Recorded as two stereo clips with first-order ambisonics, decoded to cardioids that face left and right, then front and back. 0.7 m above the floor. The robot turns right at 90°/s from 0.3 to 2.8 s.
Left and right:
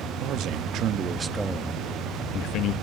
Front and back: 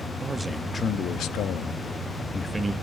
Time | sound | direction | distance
0.2 | a man speaking | 105° right | 0.7 m